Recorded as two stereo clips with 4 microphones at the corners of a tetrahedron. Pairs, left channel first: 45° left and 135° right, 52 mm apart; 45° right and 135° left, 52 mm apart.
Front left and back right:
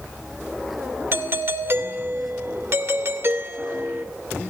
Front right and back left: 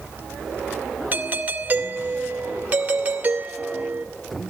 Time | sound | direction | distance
1.1 | a doorbell | 170° right | 2 m